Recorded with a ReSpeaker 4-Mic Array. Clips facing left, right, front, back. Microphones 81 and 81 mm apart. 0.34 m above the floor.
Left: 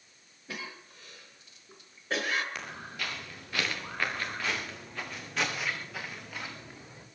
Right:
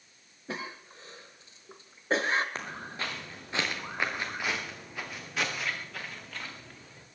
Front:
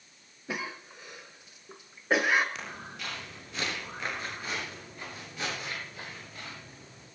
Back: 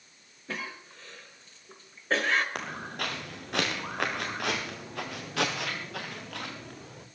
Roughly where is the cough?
Right.